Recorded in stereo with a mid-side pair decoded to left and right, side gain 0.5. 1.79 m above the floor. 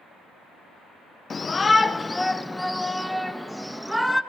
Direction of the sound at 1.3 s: 35° left.